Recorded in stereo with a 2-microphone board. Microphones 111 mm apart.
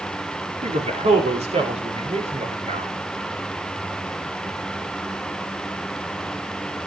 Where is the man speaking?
80° right, 4 m; by 2.9 s 70° right (ahead or behind), 7 m.